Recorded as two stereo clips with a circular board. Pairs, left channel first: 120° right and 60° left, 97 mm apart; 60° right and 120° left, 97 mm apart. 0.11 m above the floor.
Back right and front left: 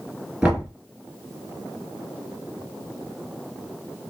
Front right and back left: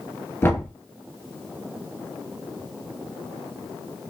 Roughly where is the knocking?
Ahead.